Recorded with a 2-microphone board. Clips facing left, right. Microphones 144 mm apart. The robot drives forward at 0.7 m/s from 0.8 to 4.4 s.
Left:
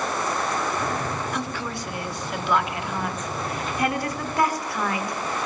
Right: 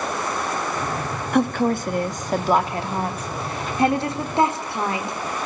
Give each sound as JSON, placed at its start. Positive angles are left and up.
{"t": 1.3, "sound": "a woman speaking", "side_deg": -55, "distance_m": 1.6}